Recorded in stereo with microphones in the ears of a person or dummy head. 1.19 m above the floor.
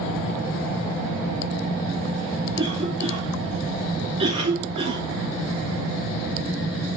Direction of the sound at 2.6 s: 30° right (ahead or behind).